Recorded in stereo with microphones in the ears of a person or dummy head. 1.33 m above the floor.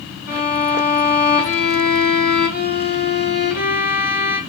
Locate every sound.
0.3 s a violin: 45° left (ahead or behind), 1.8 m